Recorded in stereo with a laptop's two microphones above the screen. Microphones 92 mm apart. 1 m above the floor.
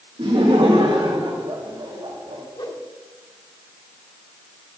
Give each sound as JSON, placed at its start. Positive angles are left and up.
{"t": 0.2, "sound": "laughter", "side_deg": -65, "distance_m": 1.5}
{"t": 2.6, "sound": "a whoosh", "side_deg": 45, "distance_m": 1.7}